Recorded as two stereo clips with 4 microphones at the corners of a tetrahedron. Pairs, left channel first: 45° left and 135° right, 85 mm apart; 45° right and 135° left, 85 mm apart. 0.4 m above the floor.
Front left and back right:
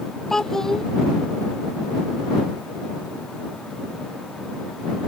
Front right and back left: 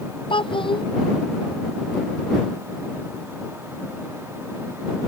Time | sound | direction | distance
0.3 | a child speaking | 40° right | ?